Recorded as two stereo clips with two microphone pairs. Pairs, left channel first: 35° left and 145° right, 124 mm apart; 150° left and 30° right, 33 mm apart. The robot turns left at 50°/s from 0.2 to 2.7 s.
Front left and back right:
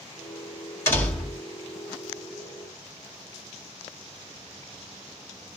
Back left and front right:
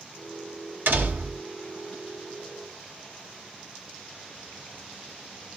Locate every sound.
0.9 s a door slam: 35° right, 1.2 m; by 1.4 s 60° right, 1.2 m